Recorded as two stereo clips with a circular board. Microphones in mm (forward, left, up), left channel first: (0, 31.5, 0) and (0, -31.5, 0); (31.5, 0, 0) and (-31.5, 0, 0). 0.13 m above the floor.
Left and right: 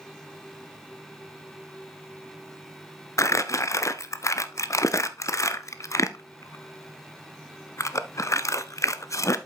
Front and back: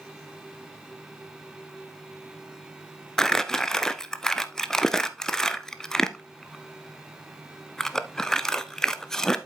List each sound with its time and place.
3.2 s crumpling: 80° left, 0.6 m